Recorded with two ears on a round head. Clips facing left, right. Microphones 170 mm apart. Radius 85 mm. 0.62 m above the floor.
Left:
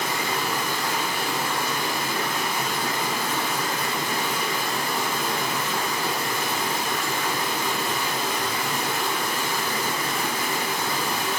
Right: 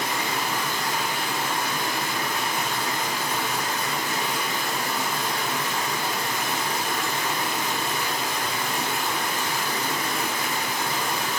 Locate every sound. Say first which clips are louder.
0.0 s running water: left 1 dB; 30° left (ahead or behind), 1.2 m